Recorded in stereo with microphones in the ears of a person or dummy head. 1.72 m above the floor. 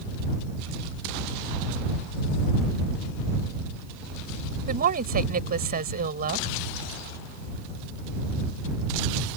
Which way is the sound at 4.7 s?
40° right (ahead or behind).